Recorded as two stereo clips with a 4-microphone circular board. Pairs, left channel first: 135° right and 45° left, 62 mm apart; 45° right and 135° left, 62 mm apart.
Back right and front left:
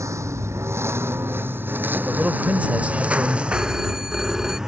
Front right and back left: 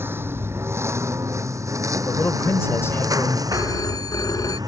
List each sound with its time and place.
0.0 s a lawn mower: 80° left; by 4.7 s 125° left
2.0 s a man speaking: 15° right
3.5 s a phone ringing: 35° right